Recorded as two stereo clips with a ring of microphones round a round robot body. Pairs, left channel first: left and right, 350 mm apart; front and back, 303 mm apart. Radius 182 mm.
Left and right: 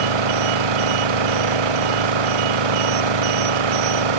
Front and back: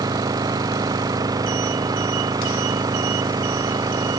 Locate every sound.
0.0 s an engine running: 100° right